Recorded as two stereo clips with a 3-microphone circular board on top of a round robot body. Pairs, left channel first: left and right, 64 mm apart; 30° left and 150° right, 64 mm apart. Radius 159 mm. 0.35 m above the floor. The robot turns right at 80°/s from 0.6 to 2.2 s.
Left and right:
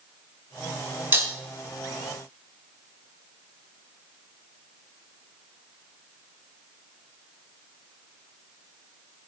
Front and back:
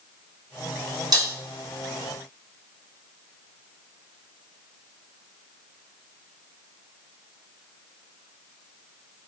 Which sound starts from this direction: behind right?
Breaking glass, at 1.1 s.